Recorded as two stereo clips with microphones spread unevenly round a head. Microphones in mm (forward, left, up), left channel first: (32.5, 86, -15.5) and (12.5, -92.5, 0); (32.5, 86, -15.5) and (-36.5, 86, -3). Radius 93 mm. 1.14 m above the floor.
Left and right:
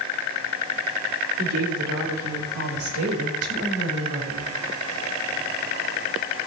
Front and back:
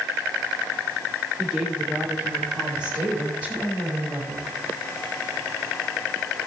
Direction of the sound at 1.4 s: 105° right.